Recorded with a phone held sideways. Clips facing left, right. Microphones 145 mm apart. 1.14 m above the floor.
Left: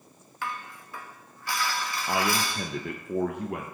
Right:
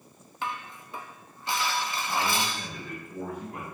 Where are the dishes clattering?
20° right (ahead or behind), 0.6 m.